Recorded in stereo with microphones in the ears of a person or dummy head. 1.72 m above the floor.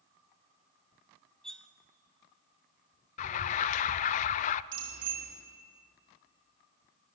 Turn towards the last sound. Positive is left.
turn(degrees=-85)